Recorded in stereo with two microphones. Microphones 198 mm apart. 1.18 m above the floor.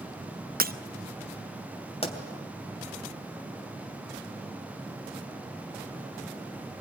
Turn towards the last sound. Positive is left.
turn(degrees=30)  # may be behind; listen again after turning